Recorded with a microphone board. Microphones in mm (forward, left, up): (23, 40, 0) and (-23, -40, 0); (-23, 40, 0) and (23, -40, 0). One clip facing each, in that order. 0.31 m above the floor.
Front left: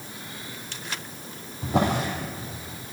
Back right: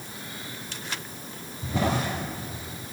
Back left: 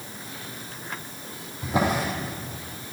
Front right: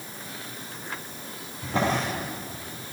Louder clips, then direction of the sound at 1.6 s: Front left 3 dB, back left 1 dB; 45° left.